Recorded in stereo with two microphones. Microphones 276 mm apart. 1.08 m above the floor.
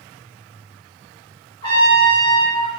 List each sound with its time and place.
1.6 s a trumpet: 15° left (ahead or behind), 1.5 m